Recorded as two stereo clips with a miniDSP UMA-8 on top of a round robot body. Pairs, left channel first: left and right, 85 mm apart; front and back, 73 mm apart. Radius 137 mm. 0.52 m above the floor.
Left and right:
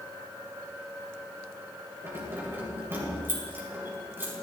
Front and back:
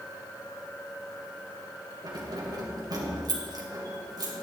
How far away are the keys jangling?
About 2.5 m.